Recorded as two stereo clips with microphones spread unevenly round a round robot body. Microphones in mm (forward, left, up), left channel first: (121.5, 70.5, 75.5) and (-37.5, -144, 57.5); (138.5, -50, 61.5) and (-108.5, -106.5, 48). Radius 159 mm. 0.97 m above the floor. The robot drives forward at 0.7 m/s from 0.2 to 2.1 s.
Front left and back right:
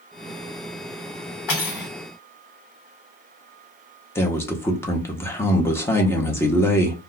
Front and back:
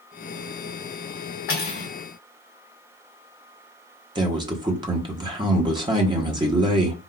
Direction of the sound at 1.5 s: 50° left.